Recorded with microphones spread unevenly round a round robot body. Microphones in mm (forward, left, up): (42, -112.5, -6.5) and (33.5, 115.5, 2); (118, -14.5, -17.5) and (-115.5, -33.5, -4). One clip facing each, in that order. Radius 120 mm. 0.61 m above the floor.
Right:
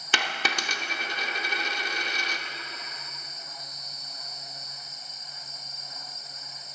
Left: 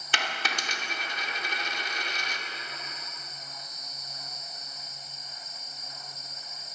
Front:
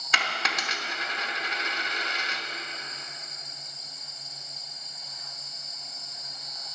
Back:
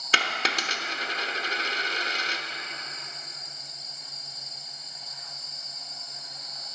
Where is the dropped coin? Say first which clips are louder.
Right 3 dB, back 3 dB; 115° right, 0.8 m.